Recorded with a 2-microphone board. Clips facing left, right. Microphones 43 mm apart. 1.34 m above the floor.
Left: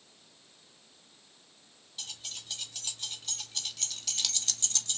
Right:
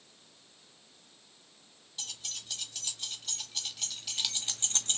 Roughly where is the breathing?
I don't hear breathing.